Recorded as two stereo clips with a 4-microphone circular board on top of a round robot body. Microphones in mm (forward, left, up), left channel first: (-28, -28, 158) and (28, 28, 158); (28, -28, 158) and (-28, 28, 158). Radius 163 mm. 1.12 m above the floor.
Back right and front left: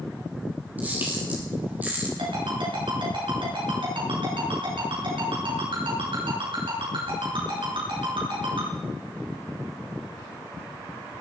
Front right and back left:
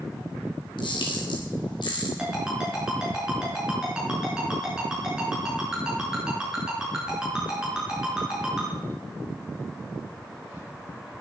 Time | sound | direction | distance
0.8 | a camera shutter | 25° right | 4 m
2.2 | a ringtone | 50° left | 6.5 m